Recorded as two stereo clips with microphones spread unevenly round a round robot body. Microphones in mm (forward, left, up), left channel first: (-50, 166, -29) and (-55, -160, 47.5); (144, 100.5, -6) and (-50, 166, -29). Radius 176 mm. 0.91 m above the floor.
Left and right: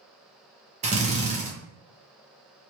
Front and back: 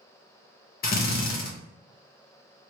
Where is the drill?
15° right, 0.6 m.